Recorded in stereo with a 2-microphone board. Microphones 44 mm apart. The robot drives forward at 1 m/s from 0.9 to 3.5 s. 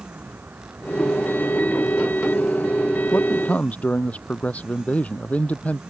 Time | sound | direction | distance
0.0 | a vehicle | 50° right (ahead or behind) | ?
3.1 | a man speaking | 35° left (ahead or behind) | ?